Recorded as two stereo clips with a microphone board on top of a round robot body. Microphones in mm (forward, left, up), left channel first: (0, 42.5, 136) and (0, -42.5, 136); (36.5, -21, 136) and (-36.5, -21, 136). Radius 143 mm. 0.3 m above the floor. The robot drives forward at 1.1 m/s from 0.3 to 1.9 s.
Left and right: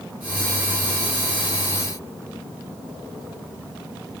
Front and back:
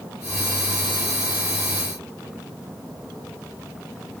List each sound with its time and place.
Only background noise.